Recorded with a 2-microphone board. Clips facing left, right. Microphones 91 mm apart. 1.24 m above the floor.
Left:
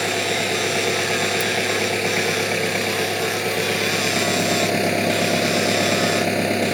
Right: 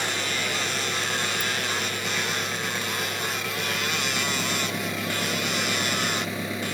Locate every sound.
0.0 s an engine running: 75° left (ahead or behind)